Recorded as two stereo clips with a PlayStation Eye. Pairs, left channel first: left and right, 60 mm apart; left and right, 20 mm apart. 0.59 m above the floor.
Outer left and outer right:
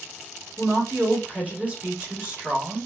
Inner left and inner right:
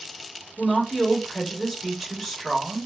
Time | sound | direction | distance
0.6 | a woman speaking | 20° right (ahead or behind) | 1.2 m